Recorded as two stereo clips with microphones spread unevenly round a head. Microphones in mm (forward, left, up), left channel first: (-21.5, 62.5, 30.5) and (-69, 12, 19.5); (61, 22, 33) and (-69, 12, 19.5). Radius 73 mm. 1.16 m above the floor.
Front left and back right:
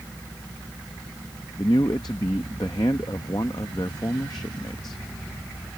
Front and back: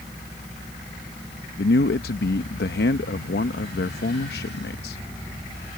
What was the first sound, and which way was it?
A man speaking, 10° right.